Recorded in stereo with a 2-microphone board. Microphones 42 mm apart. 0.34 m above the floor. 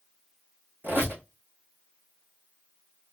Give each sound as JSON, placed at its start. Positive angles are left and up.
{"t": 0.8, "sound": "a squeak", "side_deg": -60, "distance_m": 2.5}